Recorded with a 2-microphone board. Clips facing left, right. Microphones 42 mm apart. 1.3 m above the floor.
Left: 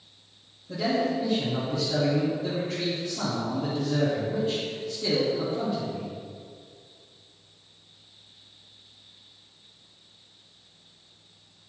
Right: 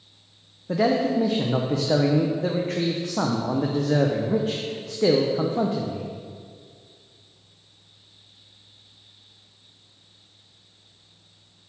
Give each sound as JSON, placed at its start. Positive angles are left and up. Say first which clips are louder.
{"t": 0.7, "sound": "a man speaking", "louder": "right 5 dB", "side_deg": -70, "distance_m": 0.7}